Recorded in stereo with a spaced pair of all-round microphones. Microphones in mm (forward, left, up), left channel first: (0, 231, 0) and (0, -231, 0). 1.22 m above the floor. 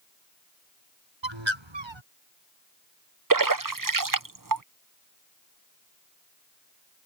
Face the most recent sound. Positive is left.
turn(degrees=-45)  # may be behind; listen again after turning